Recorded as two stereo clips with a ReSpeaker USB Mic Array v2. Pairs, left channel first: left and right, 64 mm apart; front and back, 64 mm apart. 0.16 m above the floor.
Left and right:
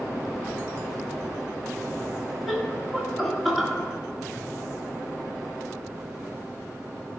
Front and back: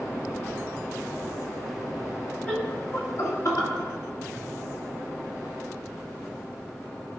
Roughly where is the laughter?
Ahead.